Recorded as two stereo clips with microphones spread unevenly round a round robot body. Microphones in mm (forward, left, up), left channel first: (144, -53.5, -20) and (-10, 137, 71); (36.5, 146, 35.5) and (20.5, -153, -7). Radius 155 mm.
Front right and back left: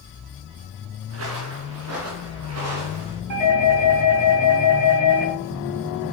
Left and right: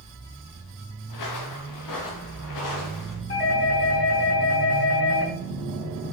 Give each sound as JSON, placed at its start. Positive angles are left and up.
{"t": 1.1, "sound": "footsteps", "azimuth_deg": 115, "distance_m": 2.0}
{"t": 3.3, "sound": "a doorbell", "azimuth_deg": 145, "distance_m": 5.0}